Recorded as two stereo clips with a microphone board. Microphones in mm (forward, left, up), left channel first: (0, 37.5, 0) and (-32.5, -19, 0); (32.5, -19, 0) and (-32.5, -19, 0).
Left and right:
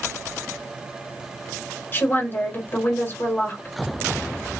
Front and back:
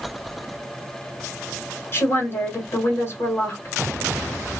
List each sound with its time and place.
1.9 s a woman speaking: 20° left, 1.7 m